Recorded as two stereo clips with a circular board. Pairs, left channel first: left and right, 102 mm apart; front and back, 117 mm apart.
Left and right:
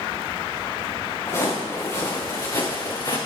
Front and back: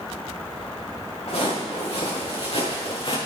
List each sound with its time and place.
1.3 s footsteps: 30° left, 6 m; by 3.2 s 40° left, 3.5 m